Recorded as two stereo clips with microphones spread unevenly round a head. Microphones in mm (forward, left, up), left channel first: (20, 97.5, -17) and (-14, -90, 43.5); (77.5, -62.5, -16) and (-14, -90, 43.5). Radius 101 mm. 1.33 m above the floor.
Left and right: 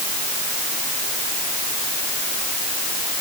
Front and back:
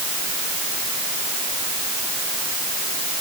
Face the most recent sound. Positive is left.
No sound to turn to.